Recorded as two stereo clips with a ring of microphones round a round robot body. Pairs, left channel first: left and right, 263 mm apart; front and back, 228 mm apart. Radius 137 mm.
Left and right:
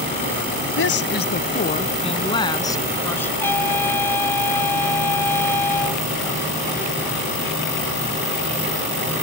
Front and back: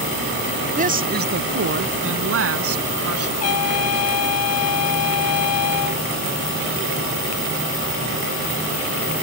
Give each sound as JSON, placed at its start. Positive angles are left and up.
{"t": 0.8, "sound": "a woman speaking", "azimuth_deg": 130}
{"t": 3.4, "sound": "a trumpet", "azimuth_deg": 10}